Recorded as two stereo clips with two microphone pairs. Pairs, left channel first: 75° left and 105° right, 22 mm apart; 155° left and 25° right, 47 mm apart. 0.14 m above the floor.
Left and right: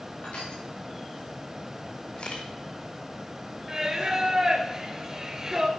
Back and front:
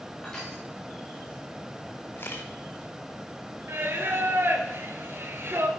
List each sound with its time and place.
0.2 s crushing: 75° left, 5.5 m
2.2 s a camera shutter: 115° left, 1.6 m
3.7 s singing: 45° right, 1.5 m